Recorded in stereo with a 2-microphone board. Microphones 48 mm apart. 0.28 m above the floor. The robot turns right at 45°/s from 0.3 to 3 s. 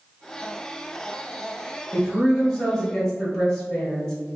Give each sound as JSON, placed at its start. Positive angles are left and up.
{"t": 1.9, "sound": "a woman speaking", "side_deg": 0, "distance_m": 1.1}